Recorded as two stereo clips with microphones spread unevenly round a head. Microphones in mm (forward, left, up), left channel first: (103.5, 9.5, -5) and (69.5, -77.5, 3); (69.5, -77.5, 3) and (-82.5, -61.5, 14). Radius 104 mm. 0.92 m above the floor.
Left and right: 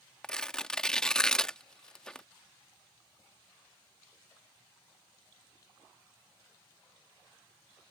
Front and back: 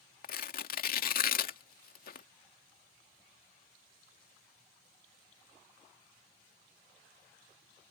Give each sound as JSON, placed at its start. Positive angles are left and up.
{"t": 0.2, "sound": "tearing paper", "azimuth_deg": -15}